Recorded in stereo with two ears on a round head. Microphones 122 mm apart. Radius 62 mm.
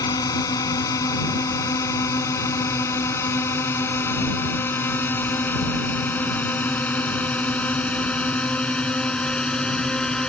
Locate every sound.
0.0 s a drone: 25° left (ahead or behind); by 10.3 s 5° left (ahead or behind)